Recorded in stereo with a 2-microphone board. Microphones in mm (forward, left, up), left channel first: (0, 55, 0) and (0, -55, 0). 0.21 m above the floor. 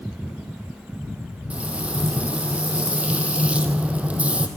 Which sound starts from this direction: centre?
Frying, at 1.5 s.